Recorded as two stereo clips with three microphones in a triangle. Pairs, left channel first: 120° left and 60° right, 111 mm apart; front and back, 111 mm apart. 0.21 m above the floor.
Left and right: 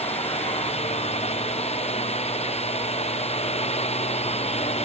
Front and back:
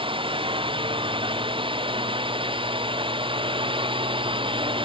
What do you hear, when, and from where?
0.0 s a drone: 140° left